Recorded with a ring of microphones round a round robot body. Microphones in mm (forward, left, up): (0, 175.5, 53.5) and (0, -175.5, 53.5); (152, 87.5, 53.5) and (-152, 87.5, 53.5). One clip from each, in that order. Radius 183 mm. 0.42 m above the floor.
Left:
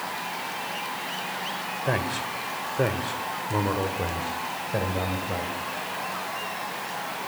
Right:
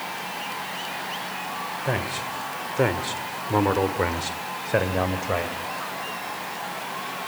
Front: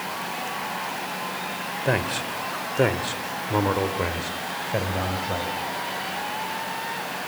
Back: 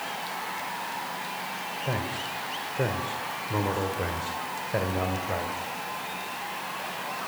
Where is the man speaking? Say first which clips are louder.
Left 1 dB, front 8 dB; straight ahead, 2 m; by 5.6 s 105° right, 2.5 m.